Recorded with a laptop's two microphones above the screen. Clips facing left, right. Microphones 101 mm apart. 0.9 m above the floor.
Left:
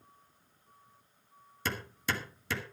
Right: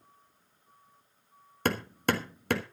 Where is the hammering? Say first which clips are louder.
Right 7 dB; 60° right (ahead or behind), 1.5 m.